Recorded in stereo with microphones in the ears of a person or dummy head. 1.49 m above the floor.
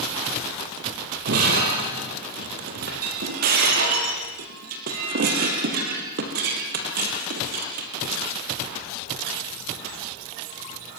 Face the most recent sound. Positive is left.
turn(degrees=-45)  # may be behind; listen again after turning